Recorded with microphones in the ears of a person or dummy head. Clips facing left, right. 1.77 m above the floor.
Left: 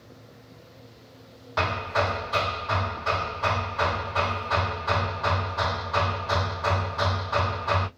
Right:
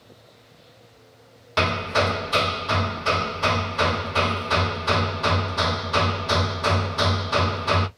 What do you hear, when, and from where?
1.6 s hammering: 50° right (ahead or behind), 0.6 m